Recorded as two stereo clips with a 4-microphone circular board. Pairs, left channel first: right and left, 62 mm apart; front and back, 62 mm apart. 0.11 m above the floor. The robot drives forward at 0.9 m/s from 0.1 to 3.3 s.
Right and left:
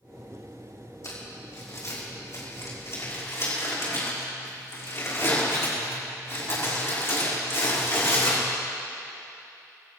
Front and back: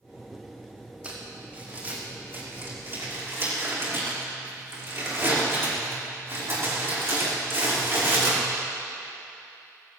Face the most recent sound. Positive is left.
turn(degrees=-130)